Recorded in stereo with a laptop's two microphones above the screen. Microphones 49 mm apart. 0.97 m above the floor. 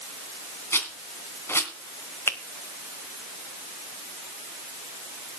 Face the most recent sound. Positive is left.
turn(degrees=60)  # may be behind; listen again after turning